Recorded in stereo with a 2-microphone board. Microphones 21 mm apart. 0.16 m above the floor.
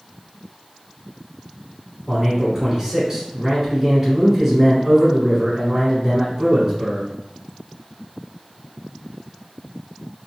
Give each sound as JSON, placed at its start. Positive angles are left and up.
{"t": 2.1, "sound": "a man speaking", "side_deg": -20, "distance_m": 1.8}